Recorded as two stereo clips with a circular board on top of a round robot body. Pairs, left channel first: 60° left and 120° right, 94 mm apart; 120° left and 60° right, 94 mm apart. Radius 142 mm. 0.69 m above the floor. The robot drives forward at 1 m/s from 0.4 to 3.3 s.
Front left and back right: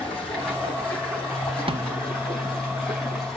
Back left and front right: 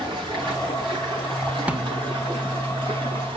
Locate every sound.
0.0 s running water: 20° right, 8 m; by 3.4 s 30° right, 5.5 m
1.7 s a snare drum: 135° right, 1.2 m; by 2.1 s 145° right, 1.6 m